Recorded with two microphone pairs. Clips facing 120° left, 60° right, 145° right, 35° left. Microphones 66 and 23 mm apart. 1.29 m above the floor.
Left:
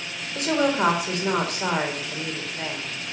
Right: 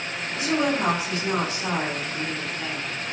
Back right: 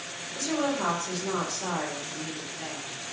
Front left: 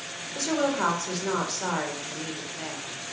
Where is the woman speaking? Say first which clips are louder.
Left 2 dB, front left 2 dB; 90° left, 4 m.